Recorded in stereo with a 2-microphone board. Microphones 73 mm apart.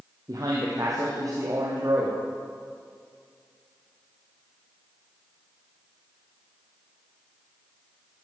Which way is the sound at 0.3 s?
50° right (ahead or behind).